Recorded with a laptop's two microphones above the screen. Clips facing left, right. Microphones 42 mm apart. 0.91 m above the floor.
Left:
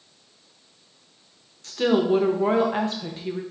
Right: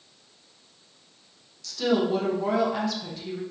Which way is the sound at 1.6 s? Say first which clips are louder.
Left 3 dB; 35° left (ahead or behind).